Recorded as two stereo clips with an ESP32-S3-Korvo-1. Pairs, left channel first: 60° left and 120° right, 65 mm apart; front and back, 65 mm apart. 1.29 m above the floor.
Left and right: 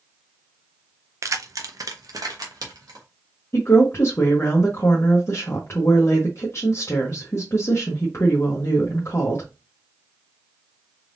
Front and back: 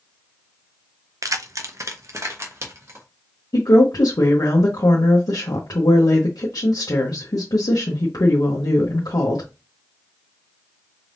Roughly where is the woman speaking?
Ahead.